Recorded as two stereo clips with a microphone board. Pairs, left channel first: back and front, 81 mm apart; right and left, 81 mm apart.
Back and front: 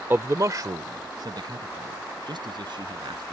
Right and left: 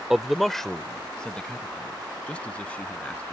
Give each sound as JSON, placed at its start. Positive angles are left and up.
{"t": 0.1, "sound": "a man speaking", "azimuth_deg": 15}